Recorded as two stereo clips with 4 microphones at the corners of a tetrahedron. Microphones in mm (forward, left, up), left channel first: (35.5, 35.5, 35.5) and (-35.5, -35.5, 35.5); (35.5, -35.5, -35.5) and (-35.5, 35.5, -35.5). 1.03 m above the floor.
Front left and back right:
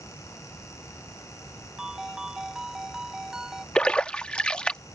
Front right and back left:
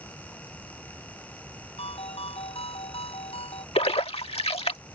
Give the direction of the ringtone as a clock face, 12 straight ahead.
2 o'clock.